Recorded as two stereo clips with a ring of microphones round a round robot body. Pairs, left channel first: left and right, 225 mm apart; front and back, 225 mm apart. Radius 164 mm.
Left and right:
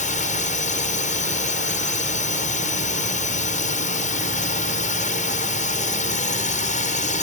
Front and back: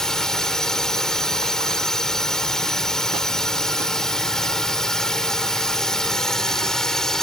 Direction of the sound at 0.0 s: 85° left.